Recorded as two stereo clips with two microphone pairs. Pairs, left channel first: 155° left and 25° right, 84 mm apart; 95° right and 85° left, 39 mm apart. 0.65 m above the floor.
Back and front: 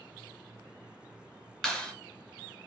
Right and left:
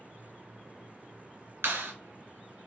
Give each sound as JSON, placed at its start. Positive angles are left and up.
{"t": 1.6, "sound": "a clap", "azimuth_deg": 80, "distance_m": 2.5}